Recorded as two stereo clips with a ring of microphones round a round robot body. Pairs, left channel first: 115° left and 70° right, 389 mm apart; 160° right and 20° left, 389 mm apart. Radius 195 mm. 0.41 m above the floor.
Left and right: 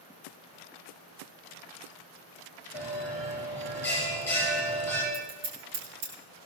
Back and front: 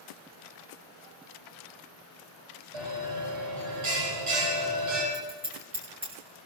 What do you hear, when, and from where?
2.7 s a bell: 25° left, 7 m
5.1 s scissors: 55° right, 6.5 m